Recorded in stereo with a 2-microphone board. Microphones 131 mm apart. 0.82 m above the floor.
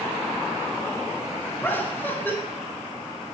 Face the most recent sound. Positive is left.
turn(degrees=15)  # may be behind; listen again after turning